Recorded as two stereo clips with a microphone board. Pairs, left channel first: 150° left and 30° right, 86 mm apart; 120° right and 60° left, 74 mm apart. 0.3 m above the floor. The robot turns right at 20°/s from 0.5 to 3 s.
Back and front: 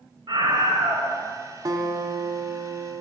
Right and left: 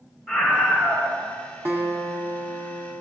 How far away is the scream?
About 4 m.